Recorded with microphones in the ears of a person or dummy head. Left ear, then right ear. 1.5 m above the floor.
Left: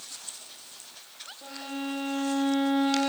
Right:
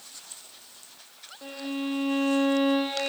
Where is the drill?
I don't hear a drill.